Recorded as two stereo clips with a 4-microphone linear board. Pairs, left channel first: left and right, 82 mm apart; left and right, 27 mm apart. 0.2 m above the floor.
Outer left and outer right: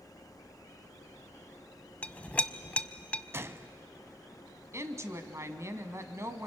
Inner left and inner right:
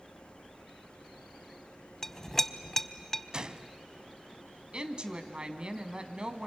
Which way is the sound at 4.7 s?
35° right (ahead or behind).